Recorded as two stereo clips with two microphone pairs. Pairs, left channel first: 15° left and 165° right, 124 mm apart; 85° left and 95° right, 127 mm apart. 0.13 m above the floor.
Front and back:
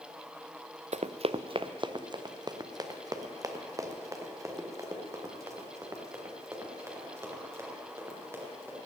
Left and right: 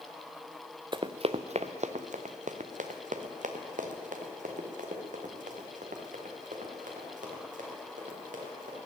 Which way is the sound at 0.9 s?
145° right.